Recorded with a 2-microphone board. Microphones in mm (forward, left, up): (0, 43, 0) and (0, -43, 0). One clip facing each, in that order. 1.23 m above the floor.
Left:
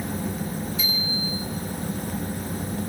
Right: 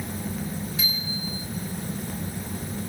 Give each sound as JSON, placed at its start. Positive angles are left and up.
{"t": 0.8, "sound": "a bicycle bell", "side_deg": -85, "distance_m": 6.0}